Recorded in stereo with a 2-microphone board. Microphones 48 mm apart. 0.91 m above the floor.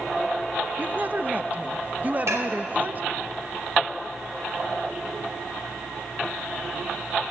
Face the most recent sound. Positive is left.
turn(degrees=-70)  # may be behind; listen again after turning